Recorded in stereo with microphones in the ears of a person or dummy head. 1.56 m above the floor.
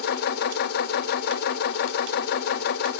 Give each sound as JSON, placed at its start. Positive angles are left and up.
{"t": 0.0, "sound": "a machine running", "side_deg": 50, "distance_m": 0.7}